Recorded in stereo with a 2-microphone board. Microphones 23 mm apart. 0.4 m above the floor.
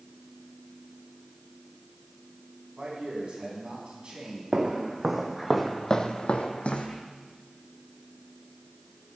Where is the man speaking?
50° right (ahead or behind), 4 m.